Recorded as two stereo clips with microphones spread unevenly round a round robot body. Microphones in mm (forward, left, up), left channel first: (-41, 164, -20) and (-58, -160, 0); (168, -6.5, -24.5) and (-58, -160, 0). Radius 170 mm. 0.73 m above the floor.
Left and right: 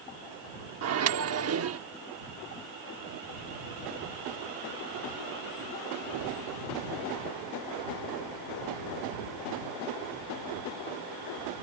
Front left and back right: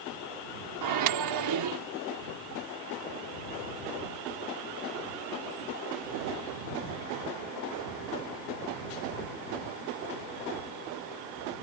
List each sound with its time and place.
0.8 s a microwave: 140° right